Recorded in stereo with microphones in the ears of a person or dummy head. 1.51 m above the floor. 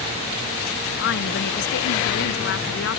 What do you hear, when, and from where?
1.0 s a woman speaking: 60° left (ahead or behind)